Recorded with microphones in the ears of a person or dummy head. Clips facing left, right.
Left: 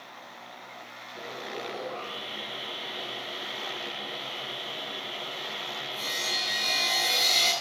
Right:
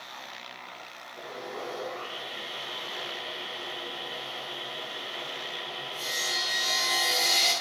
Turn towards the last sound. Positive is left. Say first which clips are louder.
# even
turn(degrees=25)  # may be behind; listen again after turning